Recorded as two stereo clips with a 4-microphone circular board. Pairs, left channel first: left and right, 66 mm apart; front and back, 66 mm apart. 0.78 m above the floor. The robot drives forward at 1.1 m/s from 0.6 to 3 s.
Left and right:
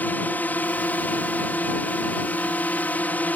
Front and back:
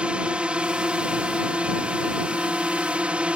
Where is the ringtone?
No ringtone in this recording.